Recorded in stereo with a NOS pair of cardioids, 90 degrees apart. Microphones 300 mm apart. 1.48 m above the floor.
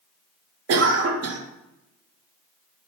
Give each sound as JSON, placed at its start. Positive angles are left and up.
{"t": 0.7, "sound": "a cough", "azimuth_deg": -55, "distance_m": 0.7}